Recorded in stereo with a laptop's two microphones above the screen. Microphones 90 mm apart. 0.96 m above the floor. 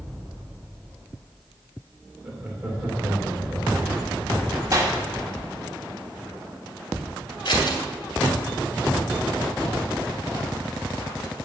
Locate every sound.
2.2 s laughter: 15° right (ahead or behind), 3 m
4.7 s a clap: 35° right (ahead or behind), 1.8 m
7.5 s scissors: 50° left (ahead or behind), 3 m